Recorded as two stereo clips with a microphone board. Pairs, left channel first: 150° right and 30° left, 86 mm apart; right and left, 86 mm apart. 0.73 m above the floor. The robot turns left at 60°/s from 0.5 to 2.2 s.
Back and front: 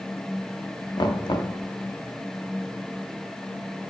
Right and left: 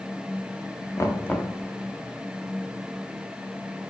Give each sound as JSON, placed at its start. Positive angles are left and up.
{"t": 1.0, "sound": "knocking", "azimuth_deg": -140, "distance_m": 1.0}